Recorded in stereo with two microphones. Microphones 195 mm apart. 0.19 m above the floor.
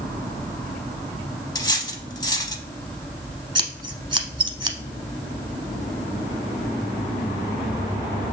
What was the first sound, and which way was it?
Cutlery clinking, 20° left (ahead or behind).